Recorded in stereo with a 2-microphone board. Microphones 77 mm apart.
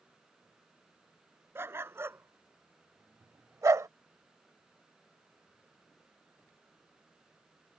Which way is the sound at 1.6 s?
30° right (ahead or behind).